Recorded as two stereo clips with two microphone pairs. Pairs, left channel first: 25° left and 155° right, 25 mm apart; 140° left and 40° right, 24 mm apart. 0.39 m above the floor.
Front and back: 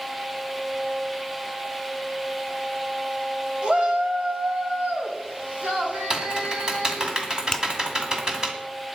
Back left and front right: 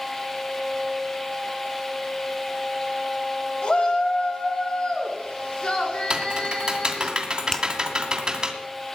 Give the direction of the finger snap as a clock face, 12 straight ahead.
9 o'clock.